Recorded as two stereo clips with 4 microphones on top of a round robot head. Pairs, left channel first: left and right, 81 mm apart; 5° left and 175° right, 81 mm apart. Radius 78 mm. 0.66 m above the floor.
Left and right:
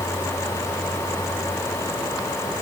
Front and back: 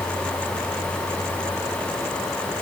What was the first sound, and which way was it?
Only background noise.